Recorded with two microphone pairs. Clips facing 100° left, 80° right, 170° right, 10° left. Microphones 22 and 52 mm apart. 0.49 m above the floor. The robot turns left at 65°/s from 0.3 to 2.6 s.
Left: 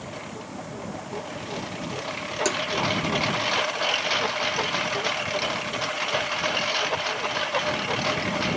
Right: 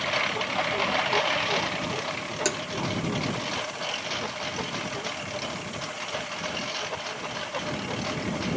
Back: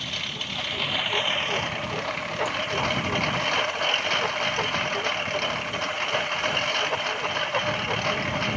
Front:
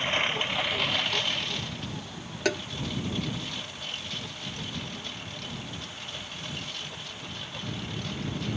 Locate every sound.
0.0 s a lawn mower: 45° right; by 8.6 s 165° left
2.5 s tapping: 10° left; by 2.6 s straight ahead